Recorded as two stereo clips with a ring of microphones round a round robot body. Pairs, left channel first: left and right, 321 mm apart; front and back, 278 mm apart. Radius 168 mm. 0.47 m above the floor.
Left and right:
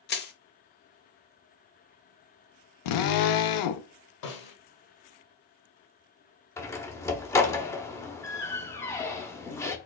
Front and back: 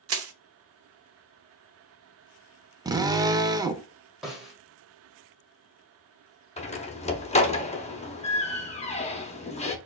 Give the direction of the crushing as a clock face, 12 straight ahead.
7 o'clock.